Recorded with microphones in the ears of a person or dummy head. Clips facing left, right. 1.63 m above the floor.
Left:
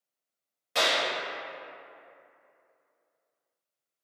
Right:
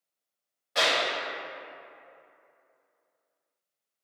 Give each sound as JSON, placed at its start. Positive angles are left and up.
{"t": 0.8, "sound": "a clap", "side_deg": 40, "distance_m": 1.7}